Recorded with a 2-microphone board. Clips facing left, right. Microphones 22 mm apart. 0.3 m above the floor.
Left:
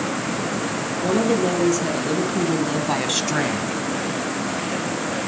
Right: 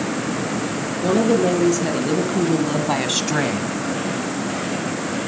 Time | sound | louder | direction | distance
1.0 | a woman speaking | right 3 dB | 5° right (ahead or behind) | 4 m